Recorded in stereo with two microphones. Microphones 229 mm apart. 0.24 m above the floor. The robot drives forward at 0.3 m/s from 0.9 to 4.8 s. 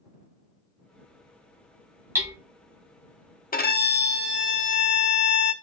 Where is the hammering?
10° right (ahead or behind), 1.1 m.